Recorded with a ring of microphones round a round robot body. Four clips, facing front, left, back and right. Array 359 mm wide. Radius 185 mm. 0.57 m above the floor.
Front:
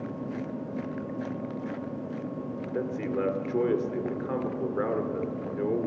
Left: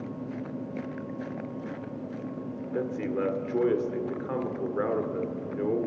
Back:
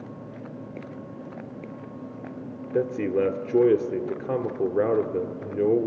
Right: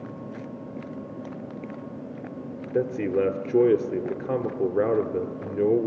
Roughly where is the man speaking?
Behind right.